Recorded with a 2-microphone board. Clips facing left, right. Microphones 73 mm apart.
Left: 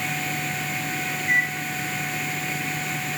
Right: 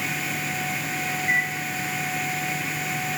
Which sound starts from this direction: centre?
A microwave, at 1.2 s.